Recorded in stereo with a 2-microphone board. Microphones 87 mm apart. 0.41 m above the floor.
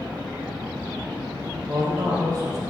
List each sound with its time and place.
1.7 s a man speaking: 45° right (ahead or behind), 2.5 m